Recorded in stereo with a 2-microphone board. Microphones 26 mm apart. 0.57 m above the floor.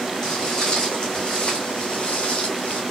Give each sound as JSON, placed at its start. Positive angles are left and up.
{"t": 0.2, "sound": "footsteps", "side_deg": 25, "distance_m": 2.5}